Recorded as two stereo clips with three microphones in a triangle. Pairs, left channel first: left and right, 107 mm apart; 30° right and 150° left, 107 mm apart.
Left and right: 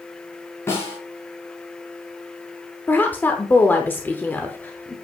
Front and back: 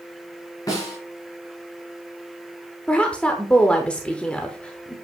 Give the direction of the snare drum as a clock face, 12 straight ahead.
11 o'clock.